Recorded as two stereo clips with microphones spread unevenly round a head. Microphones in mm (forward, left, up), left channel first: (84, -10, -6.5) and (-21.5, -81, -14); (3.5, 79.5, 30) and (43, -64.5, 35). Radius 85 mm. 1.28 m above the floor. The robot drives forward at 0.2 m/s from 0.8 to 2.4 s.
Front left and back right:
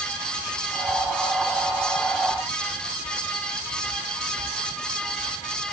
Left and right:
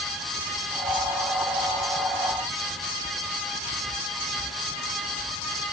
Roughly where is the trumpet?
No trumpet in this recording.